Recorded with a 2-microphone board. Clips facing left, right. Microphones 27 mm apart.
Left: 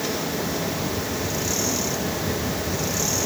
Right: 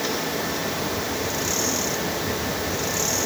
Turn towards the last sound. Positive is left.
No sound to turn to.